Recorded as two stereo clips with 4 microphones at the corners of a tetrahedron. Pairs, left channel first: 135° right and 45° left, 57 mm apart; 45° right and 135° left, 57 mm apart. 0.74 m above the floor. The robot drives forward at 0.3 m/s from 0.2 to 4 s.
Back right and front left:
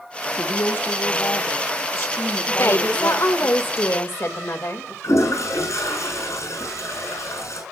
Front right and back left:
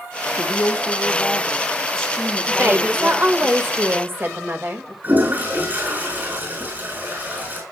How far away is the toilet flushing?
About 7.5 m.